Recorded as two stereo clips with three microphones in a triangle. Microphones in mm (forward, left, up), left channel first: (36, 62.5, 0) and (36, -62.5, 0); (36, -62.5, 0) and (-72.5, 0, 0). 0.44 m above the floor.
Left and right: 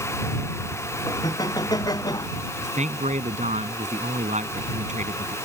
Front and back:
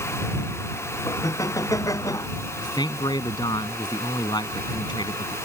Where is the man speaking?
85° right.